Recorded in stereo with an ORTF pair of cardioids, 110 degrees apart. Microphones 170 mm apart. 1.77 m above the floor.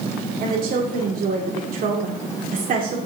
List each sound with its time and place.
0.4 s a woman speaking: 55° right, 2 m